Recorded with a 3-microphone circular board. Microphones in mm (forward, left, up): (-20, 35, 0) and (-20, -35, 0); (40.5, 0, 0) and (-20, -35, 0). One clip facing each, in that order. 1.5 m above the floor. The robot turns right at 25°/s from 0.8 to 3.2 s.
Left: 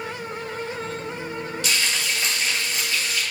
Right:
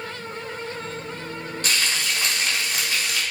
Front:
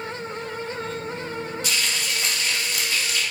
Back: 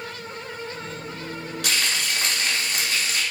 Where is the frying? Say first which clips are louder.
Right 1 dB, back 4 dB; 140° right, 6 m; by 3.2 s 100° right, 6 m.